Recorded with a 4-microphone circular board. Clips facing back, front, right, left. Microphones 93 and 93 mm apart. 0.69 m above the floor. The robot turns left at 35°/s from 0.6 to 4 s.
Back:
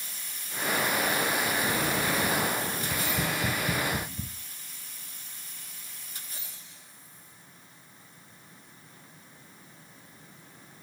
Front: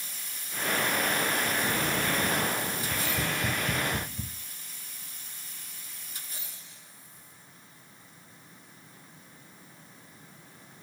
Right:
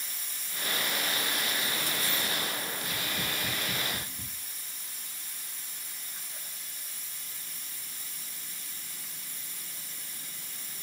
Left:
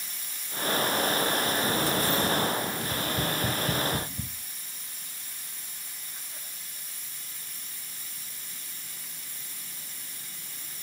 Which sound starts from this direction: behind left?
Tapping, at 2.8 s.